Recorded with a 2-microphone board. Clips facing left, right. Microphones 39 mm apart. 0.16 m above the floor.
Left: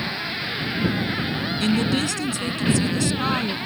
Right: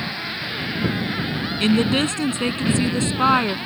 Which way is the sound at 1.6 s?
35° right (ahead or behind).